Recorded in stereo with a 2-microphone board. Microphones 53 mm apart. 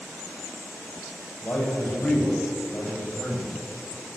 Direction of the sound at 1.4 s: 45° left (ahead or behind).